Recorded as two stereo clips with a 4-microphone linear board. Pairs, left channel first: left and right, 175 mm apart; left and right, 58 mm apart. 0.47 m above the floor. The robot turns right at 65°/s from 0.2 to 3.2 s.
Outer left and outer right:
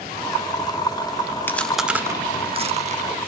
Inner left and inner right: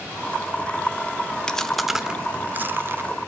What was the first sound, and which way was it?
Chewing, 15° left (ahead or behind).